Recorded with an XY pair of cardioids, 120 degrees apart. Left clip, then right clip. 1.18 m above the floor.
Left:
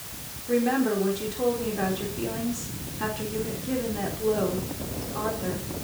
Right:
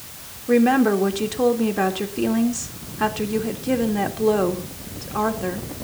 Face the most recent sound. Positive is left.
turn(degrees=-50)